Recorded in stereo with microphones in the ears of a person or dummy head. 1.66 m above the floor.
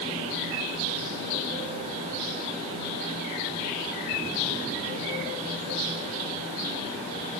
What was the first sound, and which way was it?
Only background noise.